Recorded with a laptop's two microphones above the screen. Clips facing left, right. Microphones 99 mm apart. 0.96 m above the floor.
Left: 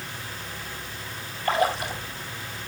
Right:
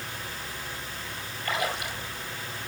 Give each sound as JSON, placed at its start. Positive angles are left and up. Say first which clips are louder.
{"t": 1.4, "sound": "a splash", "louder": "left 7 dB", "side_deg": 35, "distance_m": 2.5}